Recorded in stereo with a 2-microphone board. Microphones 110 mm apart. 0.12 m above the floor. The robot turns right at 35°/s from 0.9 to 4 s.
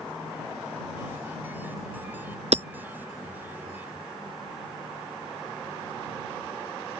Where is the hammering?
75° right (ahead or behind).